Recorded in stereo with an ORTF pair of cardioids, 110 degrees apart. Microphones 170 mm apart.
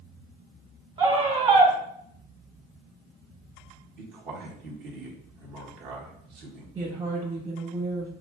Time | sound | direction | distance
1.0 | a scream | 35° right | 1.5 m
4.0 | a man speaking | 65° right | 1.7 m
6.8 | a woman speaking | 35° right | 1.6 m